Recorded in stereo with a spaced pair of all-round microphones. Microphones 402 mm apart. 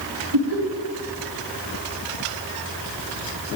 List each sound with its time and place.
0.3 s laughter: 80° right, 2.5 m